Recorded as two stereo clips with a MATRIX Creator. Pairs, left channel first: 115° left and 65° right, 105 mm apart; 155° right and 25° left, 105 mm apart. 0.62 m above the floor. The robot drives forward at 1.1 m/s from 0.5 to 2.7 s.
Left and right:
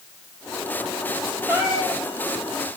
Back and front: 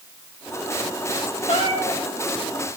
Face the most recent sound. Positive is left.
turn(degrees=-150)